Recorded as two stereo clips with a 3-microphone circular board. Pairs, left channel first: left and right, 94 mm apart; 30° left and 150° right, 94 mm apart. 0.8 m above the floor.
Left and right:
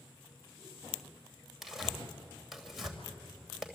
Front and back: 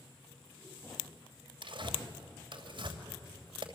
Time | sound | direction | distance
1.6 | tearing paper | straight behind | 3 m